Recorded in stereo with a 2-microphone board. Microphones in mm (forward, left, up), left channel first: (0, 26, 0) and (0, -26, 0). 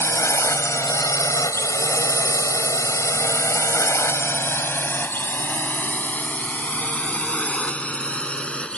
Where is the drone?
60° left (ahead or behind); by 8.8 s 20° left (ahead or behind).